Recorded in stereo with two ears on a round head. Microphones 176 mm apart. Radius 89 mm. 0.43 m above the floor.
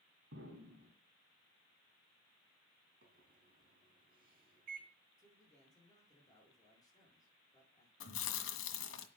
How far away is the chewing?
About 1.8 m.